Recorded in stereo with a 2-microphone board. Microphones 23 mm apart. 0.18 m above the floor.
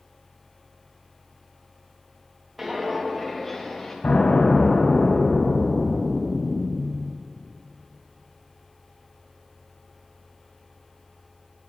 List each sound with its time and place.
2.6 s footsteps: 5° right (ahead or behind), 3 m; by 3.9 s 25° left (ahead or behind), 3 m
4.0 s an explosion: 85° left, 4 m